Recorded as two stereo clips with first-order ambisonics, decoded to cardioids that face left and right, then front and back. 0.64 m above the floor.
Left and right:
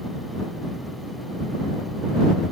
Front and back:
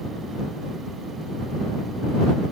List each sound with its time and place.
Only background noise.